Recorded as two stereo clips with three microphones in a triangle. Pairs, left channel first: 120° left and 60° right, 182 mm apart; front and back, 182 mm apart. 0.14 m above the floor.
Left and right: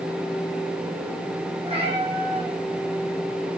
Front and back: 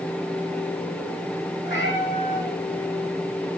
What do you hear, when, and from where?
1.6 s a cat meowing: straight ahead, 3 m